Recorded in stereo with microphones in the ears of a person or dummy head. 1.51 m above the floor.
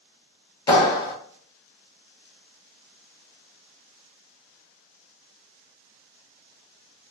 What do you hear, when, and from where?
0.7 s a clap: 25° left (ahead or behind), 1.0 m